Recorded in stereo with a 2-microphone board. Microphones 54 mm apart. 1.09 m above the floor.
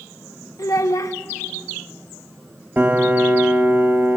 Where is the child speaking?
85° left, 1.1 m.